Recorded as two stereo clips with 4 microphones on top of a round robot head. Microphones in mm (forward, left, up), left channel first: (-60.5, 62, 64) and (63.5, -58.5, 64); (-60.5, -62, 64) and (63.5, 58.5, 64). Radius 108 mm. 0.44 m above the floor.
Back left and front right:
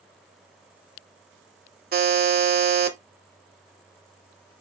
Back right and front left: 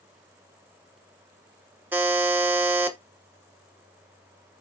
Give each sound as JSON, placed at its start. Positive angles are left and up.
{"t": 1.9, "sound": "a buzzer", "azimuth_deg": -35, "distance_m": 1.0}